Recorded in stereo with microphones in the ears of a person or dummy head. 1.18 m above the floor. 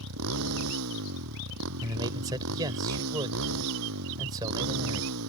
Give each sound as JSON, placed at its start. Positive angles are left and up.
{"t": 0.0, "sound": "a motorcycle", "side_deg": -90}
{"t": 1.8, "sound": "a man speaking", "side_deg": -20}